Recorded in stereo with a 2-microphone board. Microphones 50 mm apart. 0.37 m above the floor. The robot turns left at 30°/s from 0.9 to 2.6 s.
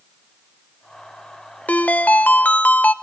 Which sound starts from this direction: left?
A ringtone, at 1.7 s.